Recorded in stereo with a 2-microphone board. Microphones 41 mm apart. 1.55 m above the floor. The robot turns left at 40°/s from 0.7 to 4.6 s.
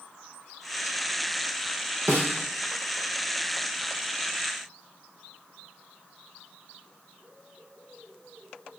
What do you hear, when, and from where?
2.1 s a snare drum: 55° right (ahead or behind), 1.8 m; by 2.3 s 65° right (ahead or behind), 1.8 m